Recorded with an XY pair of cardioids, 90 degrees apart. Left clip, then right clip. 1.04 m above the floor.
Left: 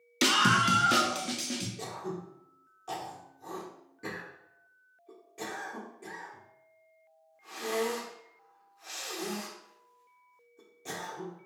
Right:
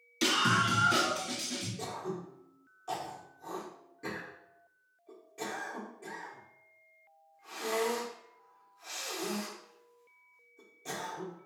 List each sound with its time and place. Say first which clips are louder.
0.2 s a scream: left 3 dB; 55° left, 0.6 m; by 1.7 s 75° left, 1.4 m
1.8 s throat clearing: even; 20° left, 1.4 m